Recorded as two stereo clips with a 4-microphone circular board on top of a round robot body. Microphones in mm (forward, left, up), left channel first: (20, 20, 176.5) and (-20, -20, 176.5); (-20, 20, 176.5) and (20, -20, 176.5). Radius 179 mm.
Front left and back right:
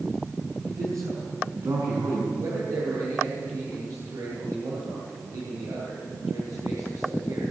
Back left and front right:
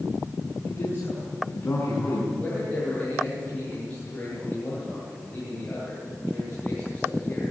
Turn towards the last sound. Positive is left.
turn(degrees=-160)